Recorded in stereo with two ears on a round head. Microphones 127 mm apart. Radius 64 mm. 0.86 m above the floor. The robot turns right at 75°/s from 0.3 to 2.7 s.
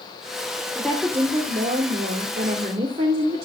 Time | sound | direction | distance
0.8 | a woman speaking | 170° left | 2.5 m